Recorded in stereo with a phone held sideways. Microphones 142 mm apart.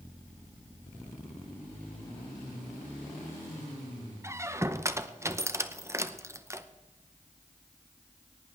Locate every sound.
4.2 s a squeak: 20° right (ahead or behind), 0.7 m